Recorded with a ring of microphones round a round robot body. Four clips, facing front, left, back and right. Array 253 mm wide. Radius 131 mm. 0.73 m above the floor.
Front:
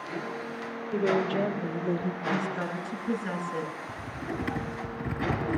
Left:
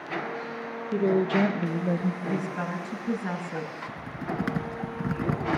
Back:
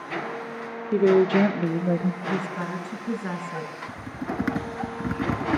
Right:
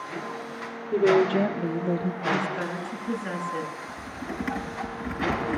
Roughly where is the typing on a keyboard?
Behind left.